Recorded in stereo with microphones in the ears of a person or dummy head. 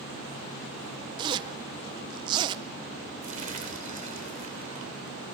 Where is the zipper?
25° right (ahead or behind), 0.7 m.